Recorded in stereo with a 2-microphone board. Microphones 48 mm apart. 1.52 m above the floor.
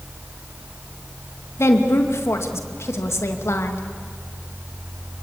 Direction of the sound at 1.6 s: 70° left (ahead or behind).